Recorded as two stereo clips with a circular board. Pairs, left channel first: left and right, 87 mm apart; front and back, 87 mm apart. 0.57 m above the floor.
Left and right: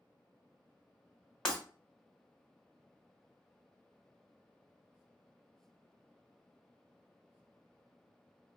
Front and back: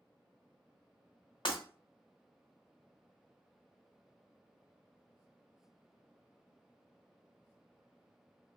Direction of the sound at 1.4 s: 10° left.